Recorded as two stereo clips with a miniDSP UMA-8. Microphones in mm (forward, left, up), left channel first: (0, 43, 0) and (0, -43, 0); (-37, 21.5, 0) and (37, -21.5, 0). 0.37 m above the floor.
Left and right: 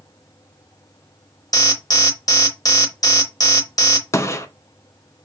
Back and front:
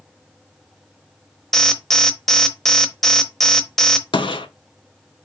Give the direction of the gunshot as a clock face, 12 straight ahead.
7 o'clock.